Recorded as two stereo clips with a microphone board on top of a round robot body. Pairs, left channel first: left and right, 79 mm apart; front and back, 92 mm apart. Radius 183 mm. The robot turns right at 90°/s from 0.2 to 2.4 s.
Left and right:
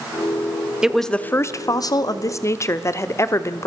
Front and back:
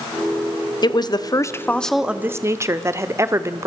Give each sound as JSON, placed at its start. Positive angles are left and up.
{"t": 0.8, "sound": "a woman speaking", "azimuth_deg": -10, "distance_m": 1.4}